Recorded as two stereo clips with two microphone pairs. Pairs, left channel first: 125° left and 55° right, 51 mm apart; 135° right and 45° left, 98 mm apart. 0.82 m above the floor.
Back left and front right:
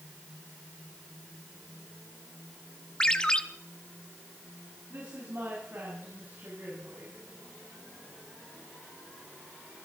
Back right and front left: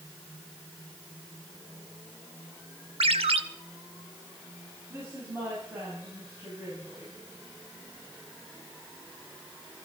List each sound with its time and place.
3.0 s a ringtone: 50° left, 1.0 m
4.9 s a woman speaking: 15° right, 7.5 m